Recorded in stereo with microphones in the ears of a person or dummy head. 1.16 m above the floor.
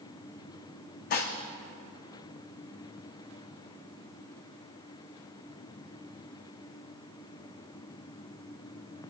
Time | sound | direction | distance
1.1 | dishes clattering | 50° left (ahead or behind) | 1.1 m